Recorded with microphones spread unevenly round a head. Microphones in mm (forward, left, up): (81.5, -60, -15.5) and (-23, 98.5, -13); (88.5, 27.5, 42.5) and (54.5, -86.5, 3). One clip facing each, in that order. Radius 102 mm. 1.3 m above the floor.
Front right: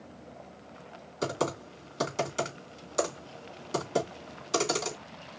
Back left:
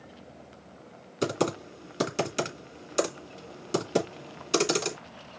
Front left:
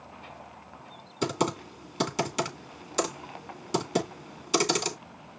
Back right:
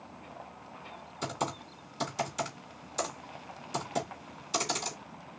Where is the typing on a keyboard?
65° left, 2.5 m.